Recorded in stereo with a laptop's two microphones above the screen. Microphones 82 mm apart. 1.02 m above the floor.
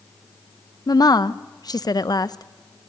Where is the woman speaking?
55° left (ahead or behind), 0.7 m.